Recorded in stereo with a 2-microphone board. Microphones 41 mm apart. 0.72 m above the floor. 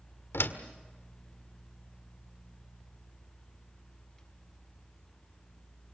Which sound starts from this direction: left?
A door slam, at 0.3 s.